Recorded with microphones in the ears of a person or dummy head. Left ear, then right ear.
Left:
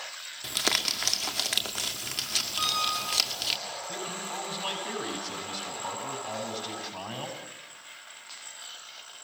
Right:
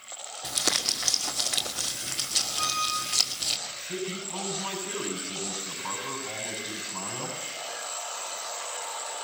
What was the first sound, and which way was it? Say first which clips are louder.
Crumpling: even; 35° left (ahead or behind).